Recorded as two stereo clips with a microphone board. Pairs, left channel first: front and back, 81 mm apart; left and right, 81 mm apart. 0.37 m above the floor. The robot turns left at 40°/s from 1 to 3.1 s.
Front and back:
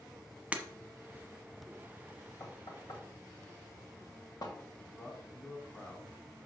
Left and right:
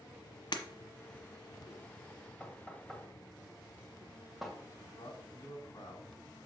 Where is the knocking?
30° left, 1.8 m; by 4.5 s straight ahead, 1.8 m.